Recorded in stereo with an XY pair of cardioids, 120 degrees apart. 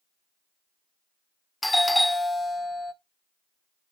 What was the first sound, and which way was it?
A doorbell, 10° left.